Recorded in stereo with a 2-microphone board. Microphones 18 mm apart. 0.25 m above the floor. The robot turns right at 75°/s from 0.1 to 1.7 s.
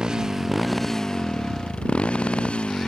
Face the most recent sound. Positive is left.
turn(degrees=80)